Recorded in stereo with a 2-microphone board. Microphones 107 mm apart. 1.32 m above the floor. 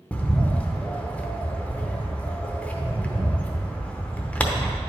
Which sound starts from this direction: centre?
A bird, at 0.1 s.